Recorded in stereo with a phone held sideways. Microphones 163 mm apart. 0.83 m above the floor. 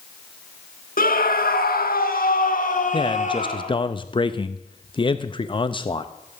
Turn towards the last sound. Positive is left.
turn(degrees=30)  # may be behind; listen again after turning